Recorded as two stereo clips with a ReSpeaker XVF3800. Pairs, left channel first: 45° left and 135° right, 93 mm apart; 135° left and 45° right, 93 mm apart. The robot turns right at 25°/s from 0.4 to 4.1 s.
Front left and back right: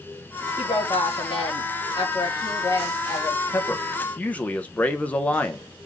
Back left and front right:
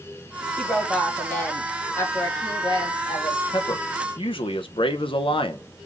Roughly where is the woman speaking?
Ahead left.